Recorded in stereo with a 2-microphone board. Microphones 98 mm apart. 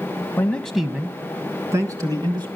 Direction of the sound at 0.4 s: 20° left (ahead or behind).